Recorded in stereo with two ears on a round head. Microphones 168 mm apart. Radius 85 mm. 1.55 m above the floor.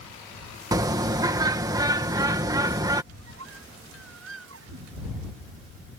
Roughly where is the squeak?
Right.